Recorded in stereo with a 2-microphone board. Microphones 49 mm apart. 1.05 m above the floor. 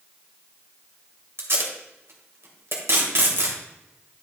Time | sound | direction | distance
1.4 | tape being pulled | 60° right (ahead or behind) | 2.0 m